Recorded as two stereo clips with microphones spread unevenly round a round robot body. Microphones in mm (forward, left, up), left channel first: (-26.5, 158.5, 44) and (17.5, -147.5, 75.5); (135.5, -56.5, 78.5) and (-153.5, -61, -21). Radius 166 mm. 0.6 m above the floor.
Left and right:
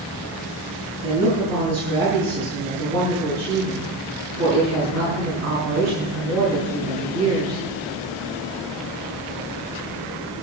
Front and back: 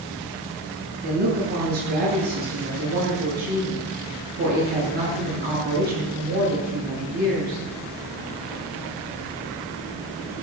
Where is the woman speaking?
125° right, 8 m.